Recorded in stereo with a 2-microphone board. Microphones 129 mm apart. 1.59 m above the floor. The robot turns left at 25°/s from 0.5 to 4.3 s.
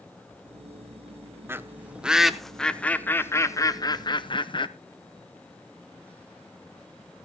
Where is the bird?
20° right (ahead or behind), 0.7 m; by 4.7 s 40° left (ahead or behind), 0.7 m.